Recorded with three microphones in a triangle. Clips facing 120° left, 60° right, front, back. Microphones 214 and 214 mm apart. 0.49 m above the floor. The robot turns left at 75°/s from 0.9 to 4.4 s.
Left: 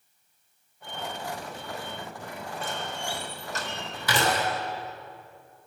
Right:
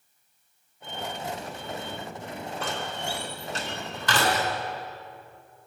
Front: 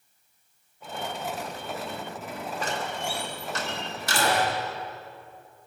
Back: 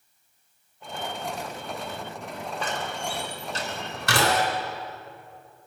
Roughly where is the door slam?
Ahead right.